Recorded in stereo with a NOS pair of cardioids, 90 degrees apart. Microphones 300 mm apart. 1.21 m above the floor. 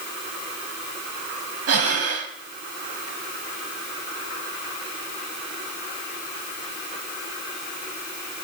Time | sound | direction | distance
1.7 | breathing | 55° right | 4 m